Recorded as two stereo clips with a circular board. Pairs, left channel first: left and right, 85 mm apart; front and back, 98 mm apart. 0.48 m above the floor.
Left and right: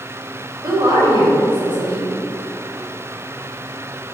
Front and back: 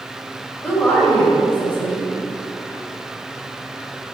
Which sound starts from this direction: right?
A woman speaking, at 0.6 s.